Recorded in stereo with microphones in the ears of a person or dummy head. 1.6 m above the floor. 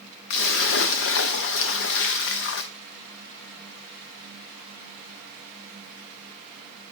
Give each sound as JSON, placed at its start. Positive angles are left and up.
{"t": 0.3, "sound": "a splash", "side_deg": 55, "distance_m": 0.6}